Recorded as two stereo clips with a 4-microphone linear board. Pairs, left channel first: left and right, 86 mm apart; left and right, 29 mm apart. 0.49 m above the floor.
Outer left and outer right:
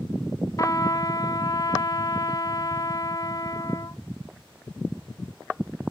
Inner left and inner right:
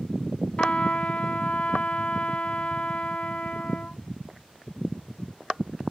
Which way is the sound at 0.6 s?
40° left (ahead or behind).